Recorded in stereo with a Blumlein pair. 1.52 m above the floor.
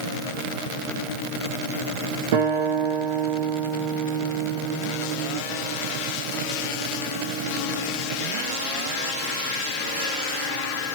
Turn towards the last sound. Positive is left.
turn(degrees=-50)